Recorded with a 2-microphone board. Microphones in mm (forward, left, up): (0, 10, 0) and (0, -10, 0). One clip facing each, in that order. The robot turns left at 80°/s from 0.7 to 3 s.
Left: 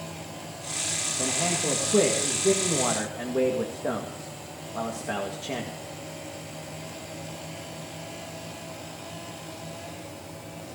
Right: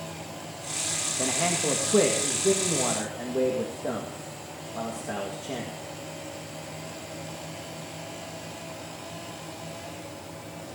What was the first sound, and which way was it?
A man speaking, 80° right.